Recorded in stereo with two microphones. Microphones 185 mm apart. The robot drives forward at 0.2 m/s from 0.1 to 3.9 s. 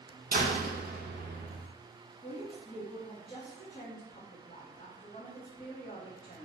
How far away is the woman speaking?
About 0.7 m.